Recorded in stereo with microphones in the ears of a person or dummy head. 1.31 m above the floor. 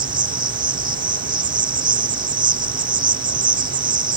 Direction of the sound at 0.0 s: 25° right (ahead or behind).